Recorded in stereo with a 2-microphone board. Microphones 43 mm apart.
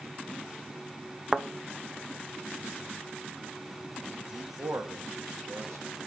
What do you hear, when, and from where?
1.3 s a thud: 25° right (ahead or behind), 0.7 m
4.3 s a man speaking: 80° right, 1.5 m